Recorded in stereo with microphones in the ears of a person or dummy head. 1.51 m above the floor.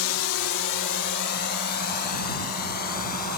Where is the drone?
80° left; by 3.4 s 45° left (ahead or behind).